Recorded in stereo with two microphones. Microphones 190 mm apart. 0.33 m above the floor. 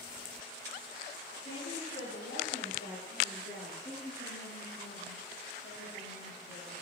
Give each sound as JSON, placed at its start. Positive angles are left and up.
{"t": 1.4, "sound": "a woman speaking", "side_deg": 75, "distance_m": 8.5}
{"t": 3.8, "sound": "a woman speaking", "side_deg": 65, "distance_m": 6.5}